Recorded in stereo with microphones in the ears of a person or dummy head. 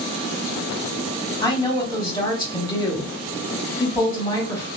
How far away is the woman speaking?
About 1.4 m.